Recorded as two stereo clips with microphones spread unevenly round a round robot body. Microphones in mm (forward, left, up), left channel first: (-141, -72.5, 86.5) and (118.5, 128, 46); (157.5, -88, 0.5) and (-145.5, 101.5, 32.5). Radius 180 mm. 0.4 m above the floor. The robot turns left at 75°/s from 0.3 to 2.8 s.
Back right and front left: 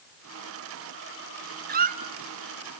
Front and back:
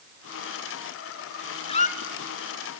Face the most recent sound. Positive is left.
turn(degrees=-60)